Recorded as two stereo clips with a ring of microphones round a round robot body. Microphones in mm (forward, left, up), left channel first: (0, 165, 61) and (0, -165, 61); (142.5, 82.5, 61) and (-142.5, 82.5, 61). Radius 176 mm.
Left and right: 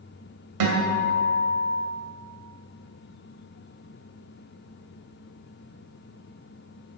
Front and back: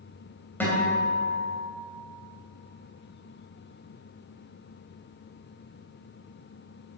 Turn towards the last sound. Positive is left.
turn(degrees=-85)